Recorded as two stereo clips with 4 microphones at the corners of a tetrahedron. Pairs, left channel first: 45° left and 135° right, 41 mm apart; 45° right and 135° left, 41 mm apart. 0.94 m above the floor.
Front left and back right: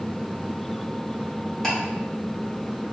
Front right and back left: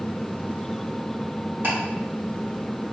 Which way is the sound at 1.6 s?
120° left.